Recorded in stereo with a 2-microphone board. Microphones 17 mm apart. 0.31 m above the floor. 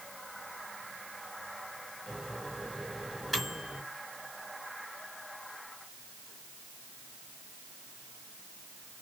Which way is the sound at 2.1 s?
10° right (ahead or behind).